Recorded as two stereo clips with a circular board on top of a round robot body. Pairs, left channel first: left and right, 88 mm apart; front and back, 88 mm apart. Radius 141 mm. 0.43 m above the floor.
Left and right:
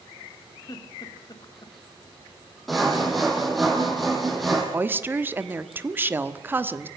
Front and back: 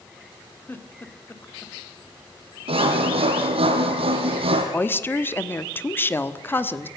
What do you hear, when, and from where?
0.7 s a giggle: 65° left, 1.8 m
2.7 s sawing: straight behind, 3.5 m
4.7 s a woman speaking: 45° right, 1.4 m